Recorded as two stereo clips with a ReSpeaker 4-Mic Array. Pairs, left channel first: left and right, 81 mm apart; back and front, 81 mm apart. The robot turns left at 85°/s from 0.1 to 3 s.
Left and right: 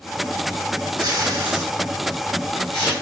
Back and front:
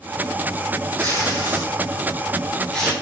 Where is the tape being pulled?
105° right, 4.5 m; by 2.9 s 85° left, 4.5 m.